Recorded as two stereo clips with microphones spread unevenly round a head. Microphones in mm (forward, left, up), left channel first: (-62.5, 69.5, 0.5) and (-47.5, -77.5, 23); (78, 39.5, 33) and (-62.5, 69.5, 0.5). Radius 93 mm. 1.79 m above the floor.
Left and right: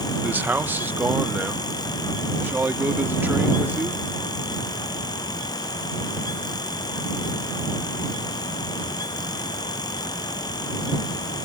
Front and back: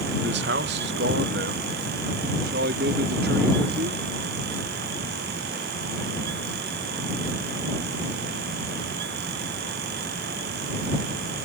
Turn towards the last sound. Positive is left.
turn(degrees=-160)